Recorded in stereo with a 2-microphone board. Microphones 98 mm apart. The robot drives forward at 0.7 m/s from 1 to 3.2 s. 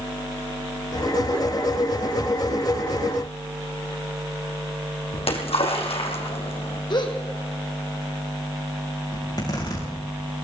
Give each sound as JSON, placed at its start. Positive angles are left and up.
{"t": 5.1, "sound": "a splash", "side_deg": 80, "distance_m": 3.0}
{"t": 6.9, "sound": "a gasp", "side_deg": 50, "distance_m": 2.5}
{"t": 9.1, "sound": "a zipper", "side_deg": 45, "distance_m": 6.5}